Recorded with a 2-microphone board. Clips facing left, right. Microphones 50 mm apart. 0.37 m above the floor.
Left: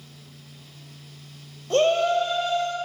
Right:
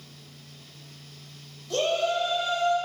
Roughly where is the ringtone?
I don't hear a ringtone.